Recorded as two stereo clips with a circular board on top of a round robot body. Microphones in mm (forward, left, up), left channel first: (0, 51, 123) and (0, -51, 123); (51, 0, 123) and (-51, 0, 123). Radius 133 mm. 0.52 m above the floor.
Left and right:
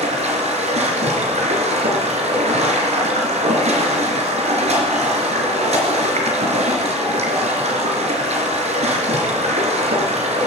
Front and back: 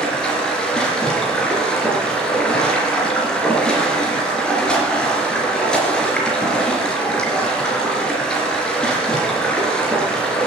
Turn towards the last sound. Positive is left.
turn(degrees=-80)